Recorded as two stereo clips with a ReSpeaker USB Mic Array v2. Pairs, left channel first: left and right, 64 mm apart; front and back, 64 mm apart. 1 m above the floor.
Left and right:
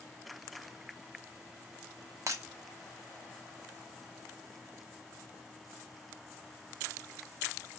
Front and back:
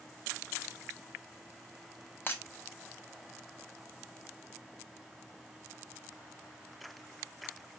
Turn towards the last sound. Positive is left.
turn(degrees=-55)